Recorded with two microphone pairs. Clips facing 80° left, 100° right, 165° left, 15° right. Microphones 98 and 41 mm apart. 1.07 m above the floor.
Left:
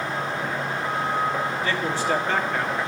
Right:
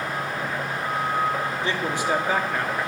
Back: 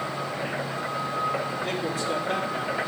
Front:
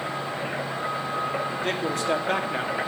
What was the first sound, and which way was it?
A man speaking, 35° right.